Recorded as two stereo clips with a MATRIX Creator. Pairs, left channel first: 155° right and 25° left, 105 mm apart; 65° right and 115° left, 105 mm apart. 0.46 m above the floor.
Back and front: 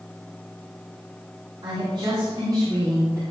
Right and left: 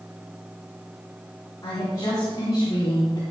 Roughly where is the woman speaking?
Ahead.